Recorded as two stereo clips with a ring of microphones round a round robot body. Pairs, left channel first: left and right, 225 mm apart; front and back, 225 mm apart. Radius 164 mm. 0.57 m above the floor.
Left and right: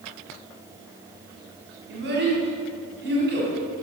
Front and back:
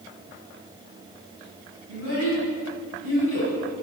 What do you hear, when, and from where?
1.9 s a child speaking: 50° right, 2.5 m